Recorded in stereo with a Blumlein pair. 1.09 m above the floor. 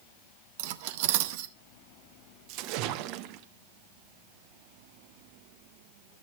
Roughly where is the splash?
Ahead right.